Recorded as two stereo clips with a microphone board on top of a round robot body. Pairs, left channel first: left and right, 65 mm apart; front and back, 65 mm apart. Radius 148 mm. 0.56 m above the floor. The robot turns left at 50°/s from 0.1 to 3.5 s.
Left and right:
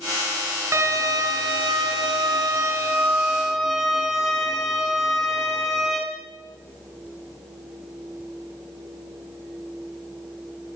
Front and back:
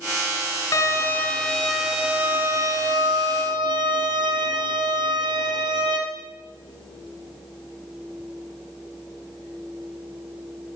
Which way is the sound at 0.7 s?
40° right.